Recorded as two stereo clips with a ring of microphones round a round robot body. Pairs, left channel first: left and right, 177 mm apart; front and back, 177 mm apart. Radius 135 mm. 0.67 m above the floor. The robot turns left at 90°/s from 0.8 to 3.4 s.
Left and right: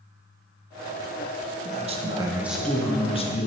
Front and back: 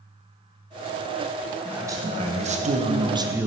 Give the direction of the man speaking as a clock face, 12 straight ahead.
3 o'clock.